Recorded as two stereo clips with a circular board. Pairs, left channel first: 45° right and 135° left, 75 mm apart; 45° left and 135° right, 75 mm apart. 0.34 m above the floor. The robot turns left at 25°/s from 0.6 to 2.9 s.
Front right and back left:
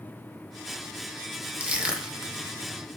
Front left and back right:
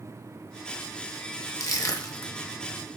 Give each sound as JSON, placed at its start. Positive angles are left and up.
{"t": 1.6, "sound": "crushing", "azimuth_deg": 70, "distance_m": 1.0}